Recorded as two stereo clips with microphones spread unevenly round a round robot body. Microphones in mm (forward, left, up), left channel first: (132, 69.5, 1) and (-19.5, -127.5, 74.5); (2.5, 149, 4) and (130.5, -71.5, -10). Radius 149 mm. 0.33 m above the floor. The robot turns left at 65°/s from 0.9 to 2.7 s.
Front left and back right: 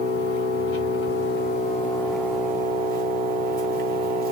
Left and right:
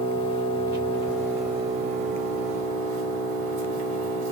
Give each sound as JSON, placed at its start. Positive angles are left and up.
{"t": 0.0, "sound": "an engine running", "azimuth_deg": 50, "distance_m": 2.0}